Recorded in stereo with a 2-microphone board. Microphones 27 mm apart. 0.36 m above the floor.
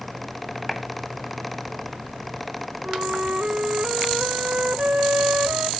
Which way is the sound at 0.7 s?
5° right (ahead or behind).